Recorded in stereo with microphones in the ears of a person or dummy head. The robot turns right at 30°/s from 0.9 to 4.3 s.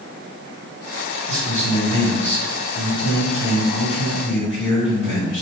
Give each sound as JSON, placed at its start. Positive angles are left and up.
{"t": 1.3, "sound": "a man speaking", "azimuth_deg": -15, "distance_m": 1.9}